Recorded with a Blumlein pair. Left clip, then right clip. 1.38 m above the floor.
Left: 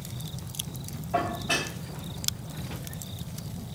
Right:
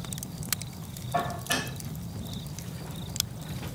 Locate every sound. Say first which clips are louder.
1.1 s dishes clattering: left 2 dB; 25° left, 2.5 m